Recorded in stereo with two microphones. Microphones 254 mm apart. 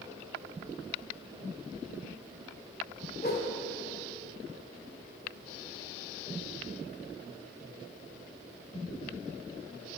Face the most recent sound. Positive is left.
turn(degrees=40)  # may be behind; listen again after turning